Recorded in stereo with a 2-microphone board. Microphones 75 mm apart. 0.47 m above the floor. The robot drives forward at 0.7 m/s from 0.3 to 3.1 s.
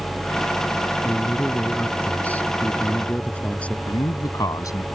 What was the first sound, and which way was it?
A man speaking, 20° left (ahead or behind).